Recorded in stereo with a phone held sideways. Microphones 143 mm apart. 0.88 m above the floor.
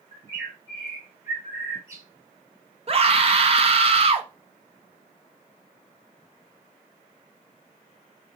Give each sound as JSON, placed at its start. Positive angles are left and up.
{"t": 0.1, "sound": "a bird", "side_deg": -20, "distance_m": 1.7}
{"t": 2.9, "sound": "a scream", "side_deg": -45, "distance_m": 0.6}